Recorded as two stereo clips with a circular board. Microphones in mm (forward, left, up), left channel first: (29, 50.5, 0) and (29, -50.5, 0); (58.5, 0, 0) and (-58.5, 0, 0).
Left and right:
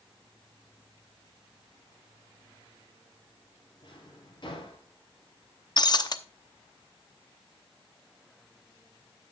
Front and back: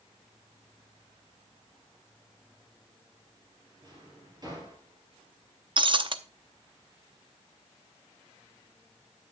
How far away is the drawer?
About 4 m.